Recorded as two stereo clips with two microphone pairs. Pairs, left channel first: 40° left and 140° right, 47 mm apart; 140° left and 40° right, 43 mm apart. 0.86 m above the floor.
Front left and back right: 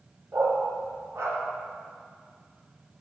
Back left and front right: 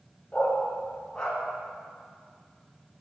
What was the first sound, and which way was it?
A dog barking, 155° right.